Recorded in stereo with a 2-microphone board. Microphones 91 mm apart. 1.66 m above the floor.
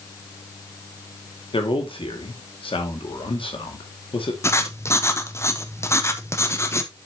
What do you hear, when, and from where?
1.5 s a man speaking: 75° left (ahead or behind), 2 m
4.4 s writing: 30° left (ahead or behind), 0.9 m